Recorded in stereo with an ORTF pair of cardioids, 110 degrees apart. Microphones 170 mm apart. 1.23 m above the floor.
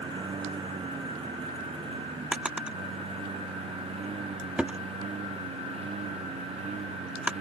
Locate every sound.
0.0 s a lawn mower: 30° right; by 7.4 s 40° right
2.3 s a drawer: 5° right